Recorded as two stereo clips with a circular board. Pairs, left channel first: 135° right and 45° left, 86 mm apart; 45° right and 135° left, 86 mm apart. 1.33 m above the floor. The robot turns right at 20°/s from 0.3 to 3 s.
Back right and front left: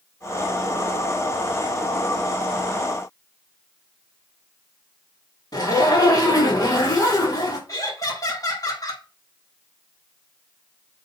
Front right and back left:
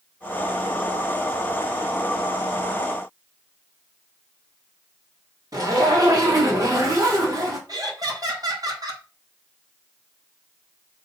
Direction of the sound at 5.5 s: Straight behind.